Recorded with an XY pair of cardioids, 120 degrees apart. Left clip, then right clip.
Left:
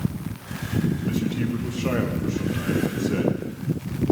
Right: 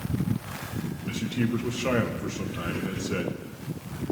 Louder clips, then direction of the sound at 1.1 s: Left 2 dB; 15° right.